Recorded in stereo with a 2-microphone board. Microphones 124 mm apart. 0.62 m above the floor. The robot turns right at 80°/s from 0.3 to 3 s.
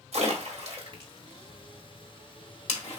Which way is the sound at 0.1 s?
60° right (ahead or behind).